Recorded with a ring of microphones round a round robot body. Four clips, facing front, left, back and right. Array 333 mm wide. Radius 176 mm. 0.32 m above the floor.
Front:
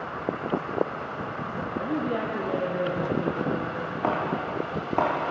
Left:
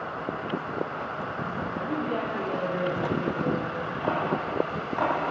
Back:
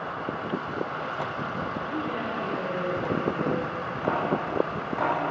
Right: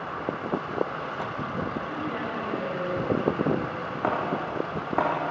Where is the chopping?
50° right, 9.5 m.